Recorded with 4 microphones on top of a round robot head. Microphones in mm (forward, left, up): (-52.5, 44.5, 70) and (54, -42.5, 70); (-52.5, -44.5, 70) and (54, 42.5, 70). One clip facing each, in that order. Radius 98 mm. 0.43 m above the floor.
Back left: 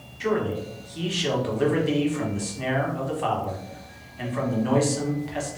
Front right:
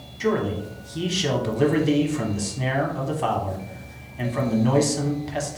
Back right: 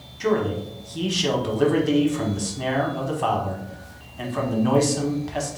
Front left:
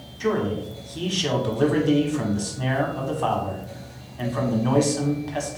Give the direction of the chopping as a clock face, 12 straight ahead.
I don't hear chopping.